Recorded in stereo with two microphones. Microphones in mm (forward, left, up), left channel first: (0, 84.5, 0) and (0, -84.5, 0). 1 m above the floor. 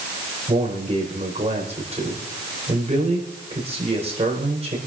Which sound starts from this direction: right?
A man speaking, at 0.5 s.